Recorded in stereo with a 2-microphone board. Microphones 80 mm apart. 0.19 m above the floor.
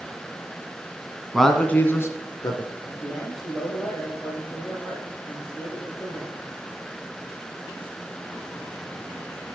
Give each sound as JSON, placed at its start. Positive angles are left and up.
{"t": 1.3, "sound": "a man speaking", "side_deg": 0, "distance_m": 1.5}
{"t": 2.9, "sound": "a man speaking", "side_deg": 5, "distance_m": 8.0}